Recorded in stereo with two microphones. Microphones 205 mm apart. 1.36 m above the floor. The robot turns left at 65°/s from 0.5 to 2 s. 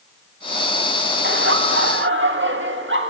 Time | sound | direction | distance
1.2 | laughter | 60° right | 1.5 m